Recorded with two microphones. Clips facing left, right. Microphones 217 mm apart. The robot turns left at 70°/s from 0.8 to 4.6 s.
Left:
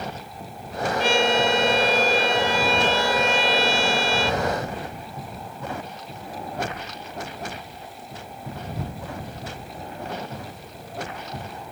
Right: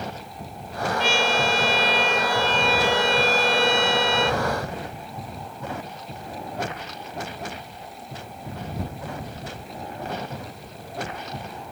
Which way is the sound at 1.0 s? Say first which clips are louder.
Left 4 dB; 120° left.